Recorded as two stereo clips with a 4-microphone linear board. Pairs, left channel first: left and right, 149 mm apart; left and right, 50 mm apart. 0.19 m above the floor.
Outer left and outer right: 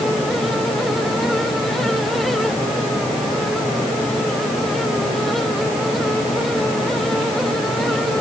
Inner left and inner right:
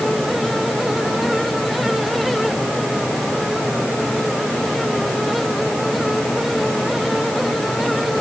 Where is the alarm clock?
I don't hear an alarm clock.